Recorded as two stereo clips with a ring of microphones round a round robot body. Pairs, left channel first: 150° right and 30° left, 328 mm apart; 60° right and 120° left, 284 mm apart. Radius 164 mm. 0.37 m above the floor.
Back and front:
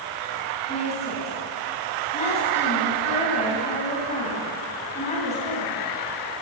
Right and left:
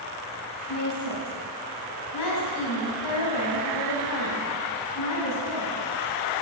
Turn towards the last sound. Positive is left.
turn(degrees=-80)